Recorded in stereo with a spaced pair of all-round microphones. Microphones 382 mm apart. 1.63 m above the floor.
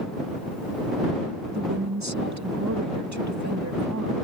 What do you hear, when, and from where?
1.5 s a woman speaking: 45° right (ahead or behind)